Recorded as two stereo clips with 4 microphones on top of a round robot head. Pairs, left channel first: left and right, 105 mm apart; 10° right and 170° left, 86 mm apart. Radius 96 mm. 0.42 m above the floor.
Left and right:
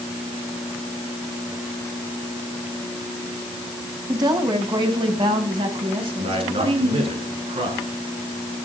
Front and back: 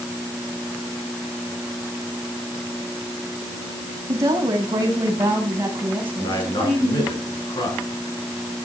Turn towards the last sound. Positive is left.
turn(degrees=-55)